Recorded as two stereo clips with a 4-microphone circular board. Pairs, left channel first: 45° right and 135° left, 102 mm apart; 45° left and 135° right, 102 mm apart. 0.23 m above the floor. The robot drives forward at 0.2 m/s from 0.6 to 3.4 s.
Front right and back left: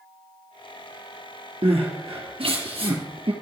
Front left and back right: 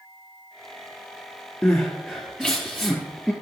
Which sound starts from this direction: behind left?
Crying, at 1.6 s.